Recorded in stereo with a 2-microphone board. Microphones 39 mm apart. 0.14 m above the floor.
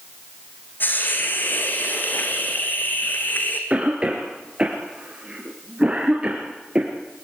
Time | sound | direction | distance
0.8 | a hiss | 50° left (ahead or behind) | 3.5 m
3.7 | a cough | 25° right (ahead or behind) | 3 m